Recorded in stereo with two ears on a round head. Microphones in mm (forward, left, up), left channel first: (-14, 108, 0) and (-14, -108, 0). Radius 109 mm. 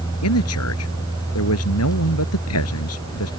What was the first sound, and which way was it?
A man speaking, 70° left (ahead or behind).